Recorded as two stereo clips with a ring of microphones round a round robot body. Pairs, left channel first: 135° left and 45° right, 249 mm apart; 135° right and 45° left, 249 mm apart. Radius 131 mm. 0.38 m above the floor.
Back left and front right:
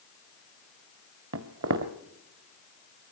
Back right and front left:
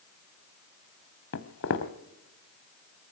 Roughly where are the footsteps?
Right.